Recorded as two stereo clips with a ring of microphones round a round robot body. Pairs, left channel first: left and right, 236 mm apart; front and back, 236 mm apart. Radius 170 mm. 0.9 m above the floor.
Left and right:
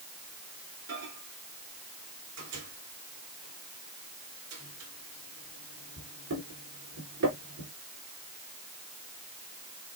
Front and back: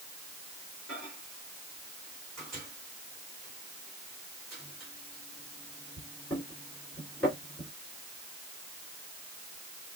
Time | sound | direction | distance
0.9 | a microwave | 90° right | 3 m